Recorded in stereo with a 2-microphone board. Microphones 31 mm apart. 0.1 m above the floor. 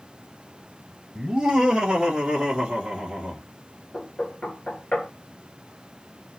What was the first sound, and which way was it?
Laughter, 15° right (ahead or behind).